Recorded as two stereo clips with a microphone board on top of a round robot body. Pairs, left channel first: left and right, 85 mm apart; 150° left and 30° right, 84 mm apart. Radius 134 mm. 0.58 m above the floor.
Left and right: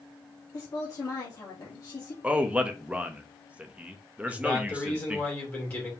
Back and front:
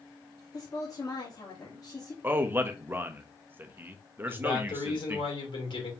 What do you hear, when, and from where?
0.5 s a woman speaking: 125° left, 1.5 m
2.2 s a man speaking: 40° right, 0.9 m
4.3 s a man speaking: 155° left, 2.5 m